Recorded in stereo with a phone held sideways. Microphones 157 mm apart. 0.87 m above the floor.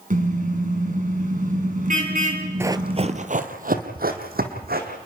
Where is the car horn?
60° right (ahead or behind), 4.5 m.